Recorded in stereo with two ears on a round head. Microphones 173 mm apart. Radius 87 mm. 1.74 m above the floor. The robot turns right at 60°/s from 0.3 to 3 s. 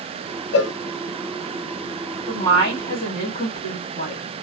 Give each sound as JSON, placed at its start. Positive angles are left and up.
{"t": 0.5, "sound": "a cowbell", "side_deg": 60, "distance_m": 0.6}
{"t": 2.3, "sound": "a woman speaking", "azimuth_deg": 0, "distance_m": 2.0}